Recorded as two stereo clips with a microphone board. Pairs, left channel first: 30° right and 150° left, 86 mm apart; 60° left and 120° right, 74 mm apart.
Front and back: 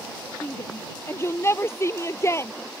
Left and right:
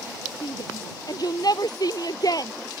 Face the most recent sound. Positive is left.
turn(degrees=25)